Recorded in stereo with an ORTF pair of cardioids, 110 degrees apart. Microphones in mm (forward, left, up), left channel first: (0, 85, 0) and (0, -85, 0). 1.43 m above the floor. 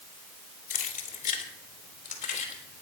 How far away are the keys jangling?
About 2.5 m.